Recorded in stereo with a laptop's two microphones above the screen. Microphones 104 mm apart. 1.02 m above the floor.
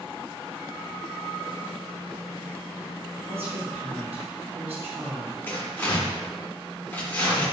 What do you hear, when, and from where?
3.3 s a woman speaking: 70° right (ahead or behind), 1.2 m
5.5 s tearing paper: 20° left (ahead or behind), 1.5 m